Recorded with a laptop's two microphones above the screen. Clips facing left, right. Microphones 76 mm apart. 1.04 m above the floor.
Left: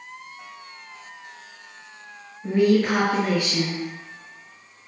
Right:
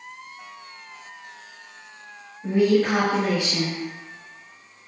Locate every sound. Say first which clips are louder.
2.4 s a woman speaking: even; 30° right (ahead or behind), 1.7 m